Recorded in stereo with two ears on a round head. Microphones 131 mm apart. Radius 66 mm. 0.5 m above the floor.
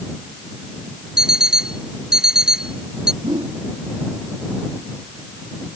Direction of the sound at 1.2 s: 5° right (ahead or behind).